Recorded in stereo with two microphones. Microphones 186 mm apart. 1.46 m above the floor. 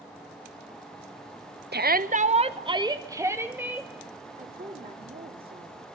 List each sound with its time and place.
1.7 s a shout: 65° right (ahead or behind), 1.0 m; by 3.9 s 10° right (ahead or behind), 2.5 m
4.4 s a woman speaking: 55° right (ahead or behind), 3.5 m